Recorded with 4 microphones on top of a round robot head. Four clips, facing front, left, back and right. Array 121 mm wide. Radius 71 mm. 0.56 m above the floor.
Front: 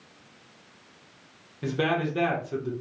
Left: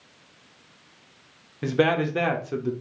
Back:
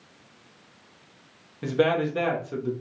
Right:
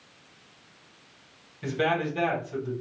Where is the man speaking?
95° left, 1.3 m.